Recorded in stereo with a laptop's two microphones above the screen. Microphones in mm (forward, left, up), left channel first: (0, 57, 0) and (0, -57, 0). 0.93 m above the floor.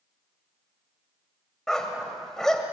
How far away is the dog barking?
About 1.7 m.